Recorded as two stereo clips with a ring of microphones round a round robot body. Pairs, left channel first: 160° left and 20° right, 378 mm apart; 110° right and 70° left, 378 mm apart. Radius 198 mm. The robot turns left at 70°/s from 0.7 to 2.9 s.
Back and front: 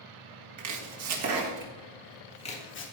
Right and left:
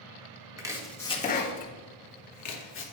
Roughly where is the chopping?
Ahead.